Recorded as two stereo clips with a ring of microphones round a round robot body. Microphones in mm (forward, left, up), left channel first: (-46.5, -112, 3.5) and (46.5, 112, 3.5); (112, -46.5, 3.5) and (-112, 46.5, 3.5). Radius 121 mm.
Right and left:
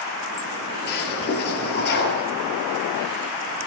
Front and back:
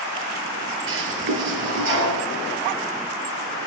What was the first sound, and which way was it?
A toilet flushing, 160° right.